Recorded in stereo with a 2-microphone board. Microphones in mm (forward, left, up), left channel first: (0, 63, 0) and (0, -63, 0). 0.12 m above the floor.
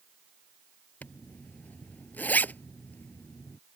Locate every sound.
1.0 s a zipper: 15° left (ahead or behind)